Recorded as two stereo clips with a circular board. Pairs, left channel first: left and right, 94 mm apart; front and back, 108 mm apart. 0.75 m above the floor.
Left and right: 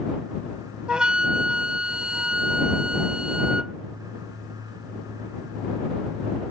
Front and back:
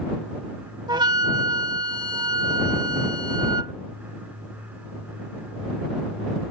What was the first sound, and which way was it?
A flute, 165° right.